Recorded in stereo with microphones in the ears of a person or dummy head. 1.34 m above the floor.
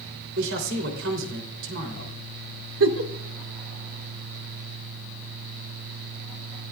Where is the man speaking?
75° right (ahead or behind), 3.5 m.